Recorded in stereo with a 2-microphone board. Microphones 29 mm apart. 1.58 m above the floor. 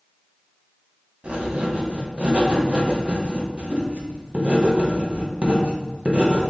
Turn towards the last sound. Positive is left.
turn(degrees=-40)  # may be behind; listen again after turning